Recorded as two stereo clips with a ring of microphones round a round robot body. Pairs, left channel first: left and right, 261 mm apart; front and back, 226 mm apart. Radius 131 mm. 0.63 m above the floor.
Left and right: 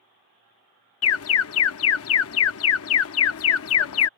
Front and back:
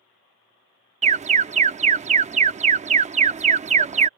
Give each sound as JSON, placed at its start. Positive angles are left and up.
{"t": 1.0, "sound": "an alarm", "azimuth_deg": 120}